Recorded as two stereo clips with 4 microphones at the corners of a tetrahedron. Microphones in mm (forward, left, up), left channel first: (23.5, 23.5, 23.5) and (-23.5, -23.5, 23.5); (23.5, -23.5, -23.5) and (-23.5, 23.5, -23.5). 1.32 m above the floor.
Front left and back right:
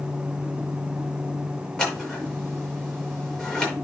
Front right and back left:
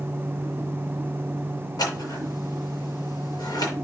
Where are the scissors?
30° right, 6.5 m.